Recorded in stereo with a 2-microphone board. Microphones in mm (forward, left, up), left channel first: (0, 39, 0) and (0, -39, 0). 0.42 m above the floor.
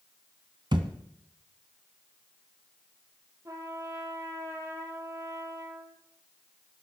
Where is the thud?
75° right (ahead or behind), 1.3 m.